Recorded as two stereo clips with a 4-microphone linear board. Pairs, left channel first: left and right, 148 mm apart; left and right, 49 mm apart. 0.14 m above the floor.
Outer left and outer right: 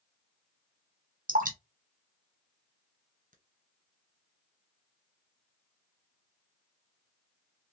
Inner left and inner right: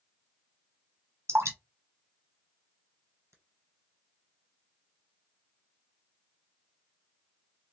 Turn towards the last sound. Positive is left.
turn(degrees=-70)  # may be behind; listen again after turning